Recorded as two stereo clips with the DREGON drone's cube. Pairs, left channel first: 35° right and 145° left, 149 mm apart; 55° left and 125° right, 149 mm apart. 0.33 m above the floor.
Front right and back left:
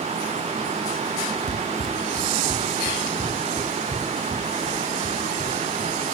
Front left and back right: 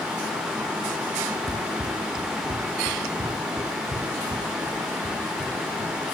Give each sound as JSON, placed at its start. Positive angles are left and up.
{"t": 1.5, "sound": "running footsteps", "azimuth_deg": 175, "distance_m": 0.5}